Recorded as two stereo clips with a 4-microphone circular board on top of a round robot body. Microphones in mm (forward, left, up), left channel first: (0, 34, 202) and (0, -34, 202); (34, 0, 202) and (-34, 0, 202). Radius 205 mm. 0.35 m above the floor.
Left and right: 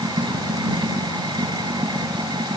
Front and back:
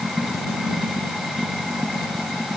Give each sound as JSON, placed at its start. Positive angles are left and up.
{"t": 0.0, "sound": "running water", "azimuth_deg": -90}